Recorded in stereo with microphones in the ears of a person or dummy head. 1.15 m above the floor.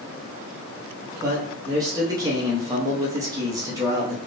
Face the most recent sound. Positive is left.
turn(degrees=-15)  # may be behind; listen again after turning